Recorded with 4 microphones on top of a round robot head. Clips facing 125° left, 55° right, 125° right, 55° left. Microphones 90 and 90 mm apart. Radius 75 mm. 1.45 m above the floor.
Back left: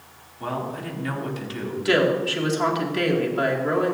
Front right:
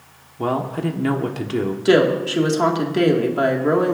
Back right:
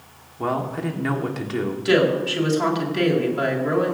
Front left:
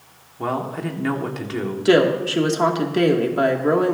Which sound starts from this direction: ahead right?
A man speaking, at 0.4 s.